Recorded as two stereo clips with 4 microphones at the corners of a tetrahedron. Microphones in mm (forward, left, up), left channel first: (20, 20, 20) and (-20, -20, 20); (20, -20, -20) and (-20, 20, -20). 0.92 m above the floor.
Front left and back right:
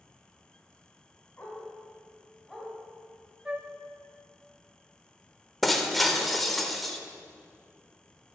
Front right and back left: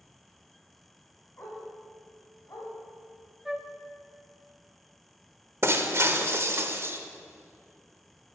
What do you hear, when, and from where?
1.4 s a dog barking: 10° right, 2.5 m; by 2.7 s 45° right, 2.5 m
3.5 s a flute: 145° right, 0.6 m
5.6 s breaking glass: 135° left, 0.7 m